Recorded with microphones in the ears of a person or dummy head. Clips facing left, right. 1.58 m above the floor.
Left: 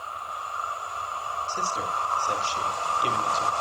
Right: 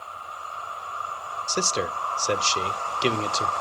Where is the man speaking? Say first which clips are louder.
Right 7 dB; 70° right (ahead or behind), 0.7 m.